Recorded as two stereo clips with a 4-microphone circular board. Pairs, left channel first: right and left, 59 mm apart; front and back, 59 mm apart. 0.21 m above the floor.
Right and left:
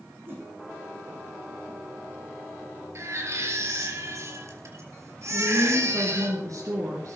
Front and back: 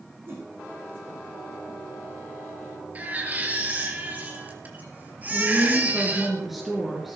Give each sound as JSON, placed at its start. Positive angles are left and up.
{"t": 0.3, "sound": "a whoosh", "azimuth_deg": 135, "distance_m": 6.0}
{"t": 3.0, "sound": "a baby crying", "azimuth_deg": 120, "distance_m": 3.5}
{"t": 5.3, "sound": "a woman speaking", "azimuth_deg": 95, "distance_m": 3.5}